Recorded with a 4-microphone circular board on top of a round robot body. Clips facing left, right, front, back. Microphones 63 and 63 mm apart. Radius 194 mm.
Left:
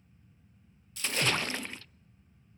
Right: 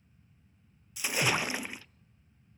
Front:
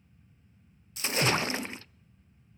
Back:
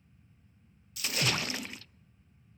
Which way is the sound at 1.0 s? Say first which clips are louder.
Right 1 dB, front 5 dB; 25° right.